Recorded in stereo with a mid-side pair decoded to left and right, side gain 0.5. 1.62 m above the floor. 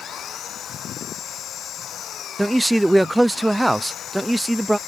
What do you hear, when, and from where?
0.0 s an engine running: 55° left
2.4 s a man speaking: 10° right